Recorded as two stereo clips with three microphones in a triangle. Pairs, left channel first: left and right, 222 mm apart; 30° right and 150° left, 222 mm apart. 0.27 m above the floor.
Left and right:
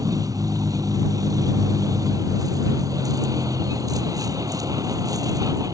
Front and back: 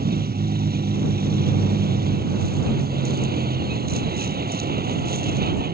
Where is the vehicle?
165° right.